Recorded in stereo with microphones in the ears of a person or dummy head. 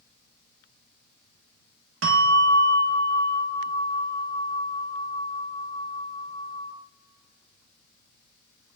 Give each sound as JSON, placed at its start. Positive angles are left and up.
{"t": 2.0, "sound": "a bell", "side_deg": -75, "distance_m": 1.7}